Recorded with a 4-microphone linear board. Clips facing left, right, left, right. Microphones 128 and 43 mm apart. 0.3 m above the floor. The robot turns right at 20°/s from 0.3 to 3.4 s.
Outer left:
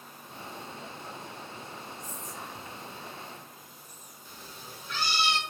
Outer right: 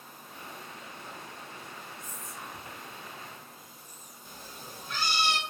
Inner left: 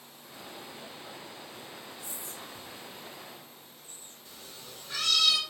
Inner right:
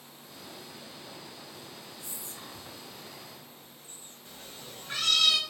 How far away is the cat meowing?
About 0.8 m.